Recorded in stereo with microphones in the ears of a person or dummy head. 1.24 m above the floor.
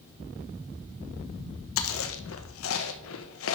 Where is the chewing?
65° left (ahead or behind), 1.3 m.